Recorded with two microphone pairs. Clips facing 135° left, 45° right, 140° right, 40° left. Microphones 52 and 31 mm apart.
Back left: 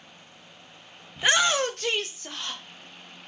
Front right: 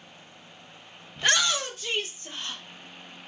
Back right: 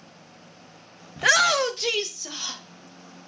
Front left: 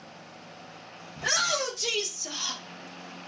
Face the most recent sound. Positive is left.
turn(degrees=140)